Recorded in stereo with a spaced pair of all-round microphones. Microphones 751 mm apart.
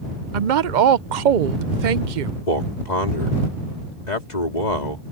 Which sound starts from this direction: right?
A woman speaking, at 0.3 s.